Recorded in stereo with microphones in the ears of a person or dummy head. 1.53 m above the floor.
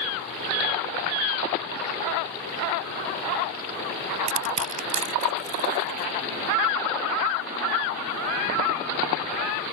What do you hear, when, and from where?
4.3 s crushing: 40° right (ahead or behind)